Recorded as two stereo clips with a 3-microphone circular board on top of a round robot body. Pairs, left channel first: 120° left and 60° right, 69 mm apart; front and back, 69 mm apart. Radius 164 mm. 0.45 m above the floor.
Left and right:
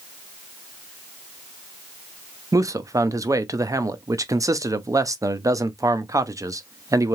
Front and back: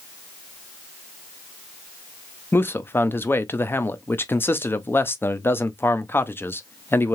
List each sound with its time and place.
2.5 s a man speaking: 50° right, 0.9 m